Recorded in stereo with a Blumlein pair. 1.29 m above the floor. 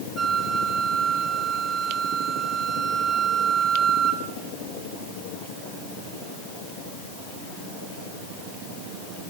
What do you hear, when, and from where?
0.2 s a flute: 15° right, 3 m